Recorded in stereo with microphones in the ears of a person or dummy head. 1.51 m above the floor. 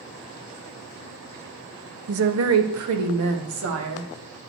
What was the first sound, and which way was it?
A woman speaking, 75° right (ahead or behind).